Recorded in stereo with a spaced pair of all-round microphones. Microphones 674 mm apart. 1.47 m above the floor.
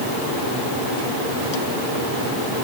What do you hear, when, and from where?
Only background noise.